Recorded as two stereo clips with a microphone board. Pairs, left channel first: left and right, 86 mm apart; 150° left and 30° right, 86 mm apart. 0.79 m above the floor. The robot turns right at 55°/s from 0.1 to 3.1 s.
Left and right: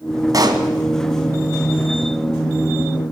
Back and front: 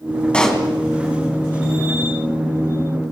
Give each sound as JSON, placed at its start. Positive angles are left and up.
{"t": 0.3, "sound": "a pop", "azimuth_deg": -130, "distance_m": 2.5}